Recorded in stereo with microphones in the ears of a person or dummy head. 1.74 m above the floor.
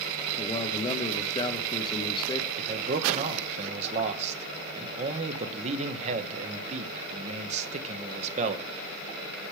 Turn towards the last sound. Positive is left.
turn(degrees=-40)  # may be behind; listen again after turning